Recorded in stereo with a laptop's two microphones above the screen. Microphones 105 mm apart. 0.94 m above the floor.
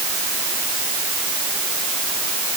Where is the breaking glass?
No breaking glass in this recording.